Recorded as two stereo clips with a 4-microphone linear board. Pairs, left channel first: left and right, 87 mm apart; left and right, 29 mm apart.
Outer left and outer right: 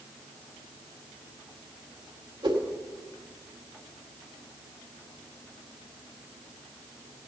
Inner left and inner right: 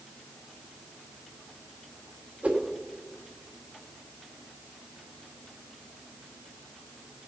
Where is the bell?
I don't hear a bell.